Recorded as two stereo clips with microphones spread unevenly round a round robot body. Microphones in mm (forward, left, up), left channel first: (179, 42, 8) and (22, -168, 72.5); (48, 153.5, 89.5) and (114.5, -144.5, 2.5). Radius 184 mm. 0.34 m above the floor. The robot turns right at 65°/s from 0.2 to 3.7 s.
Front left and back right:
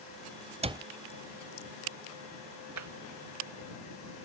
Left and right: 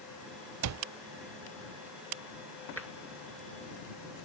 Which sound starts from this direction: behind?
Tapping, at 2.8 s.